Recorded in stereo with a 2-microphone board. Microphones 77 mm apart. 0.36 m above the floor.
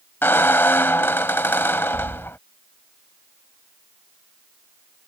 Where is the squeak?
30° left (ahead or behind).